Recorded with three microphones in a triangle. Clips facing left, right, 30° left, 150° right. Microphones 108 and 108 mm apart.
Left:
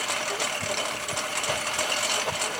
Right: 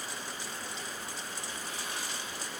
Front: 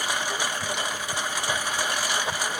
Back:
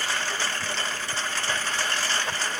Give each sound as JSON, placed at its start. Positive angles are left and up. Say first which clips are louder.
{"t": 0.0, "sound": "a lawn mower", "louder": "left 11 dB, front 1 dB", "azimuth_deg": 105}